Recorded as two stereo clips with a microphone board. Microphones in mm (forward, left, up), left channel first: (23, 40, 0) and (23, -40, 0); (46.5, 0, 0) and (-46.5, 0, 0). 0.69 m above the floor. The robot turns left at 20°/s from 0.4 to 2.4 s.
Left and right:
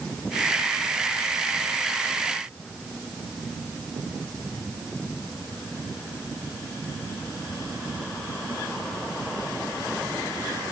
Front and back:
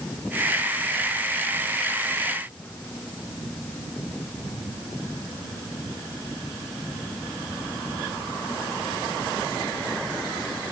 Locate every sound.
Only background noise.